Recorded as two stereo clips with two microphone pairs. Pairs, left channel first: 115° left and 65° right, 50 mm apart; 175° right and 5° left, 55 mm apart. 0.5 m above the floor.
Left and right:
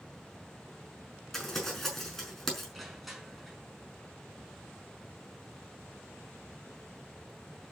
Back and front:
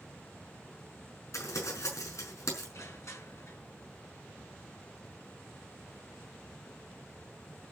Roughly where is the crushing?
Behind right.